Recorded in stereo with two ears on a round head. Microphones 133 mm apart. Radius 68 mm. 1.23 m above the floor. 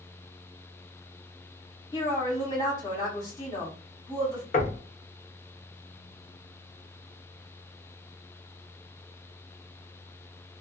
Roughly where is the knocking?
Left.